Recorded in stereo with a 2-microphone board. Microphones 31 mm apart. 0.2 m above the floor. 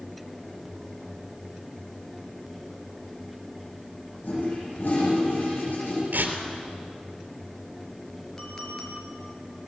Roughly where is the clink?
Centre.